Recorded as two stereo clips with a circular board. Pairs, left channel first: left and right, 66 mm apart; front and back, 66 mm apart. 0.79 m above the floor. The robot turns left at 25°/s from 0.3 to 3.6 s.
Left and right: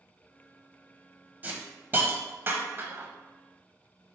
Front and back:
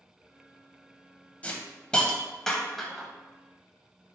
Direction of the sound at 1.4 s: 50° right.